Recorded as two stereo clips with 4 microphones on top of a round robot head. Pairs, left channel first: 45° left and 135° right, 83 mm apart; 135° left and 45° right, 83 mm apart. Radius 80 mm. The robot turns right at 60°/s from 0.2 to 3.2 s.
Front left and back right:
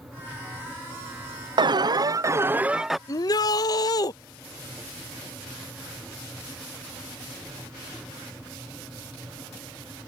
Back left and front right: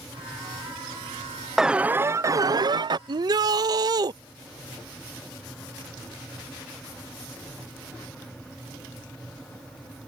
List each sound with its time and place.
1.6 s an alarm: 130° right; by 3.0 s 45° right
3.1 s a shout: 10° right; by 4.1 s straight ahead